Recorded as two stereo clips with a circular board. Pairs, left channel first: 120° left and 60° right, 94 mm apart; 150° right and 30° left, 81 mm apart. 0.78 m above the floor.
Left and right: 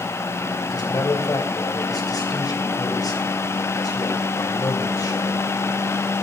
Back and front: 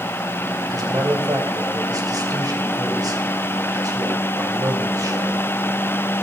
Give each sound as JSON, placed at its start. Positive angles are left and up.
{"t": 0.7, "sound": "a man speaking", "azimuth_deg": 70, "distance_m": 3.0}